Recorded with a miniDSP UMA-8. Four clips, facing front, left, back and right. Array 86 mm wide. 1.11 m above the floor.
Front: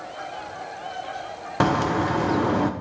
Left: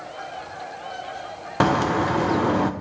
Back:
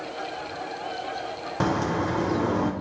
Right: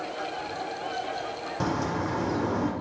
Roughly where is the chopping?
I don't hear chopping.